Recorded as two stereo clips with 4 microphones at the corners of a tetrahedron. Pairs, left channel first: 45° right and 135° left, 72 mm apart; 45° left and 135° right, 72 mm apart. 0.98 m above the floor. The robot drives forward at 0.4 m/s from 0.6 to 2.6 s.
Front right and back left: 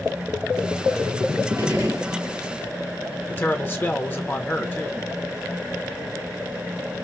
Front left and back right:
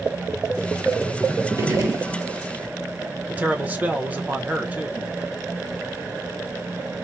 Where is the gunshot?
Straight behind, 1.4 m.